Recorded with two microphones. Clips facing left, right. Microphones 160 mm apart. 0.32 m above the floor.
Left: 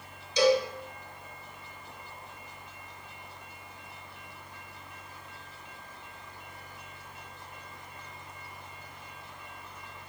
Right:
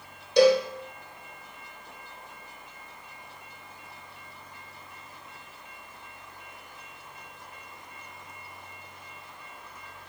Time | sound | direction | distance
0.4 | a cowbell | 60° right (ahead or behind) | 0.9 m